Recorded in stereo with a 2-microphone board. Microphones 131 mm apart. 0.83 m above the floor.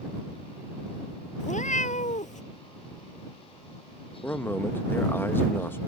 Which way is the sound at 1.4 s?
70° left (ahead or behind).